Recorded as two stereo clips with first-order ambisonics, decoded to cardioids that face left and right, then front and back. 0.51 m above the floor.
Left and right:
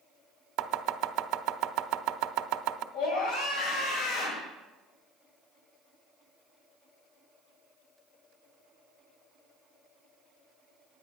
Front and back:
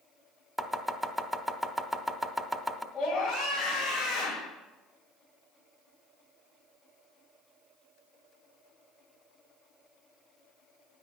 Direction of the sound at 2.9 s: 75° left.